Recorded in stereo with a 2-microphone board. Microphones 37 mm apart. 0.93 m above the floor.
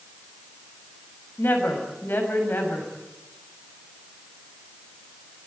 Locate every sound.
1.4 s a woman speaking: 70° left (ahead or behind), 6 m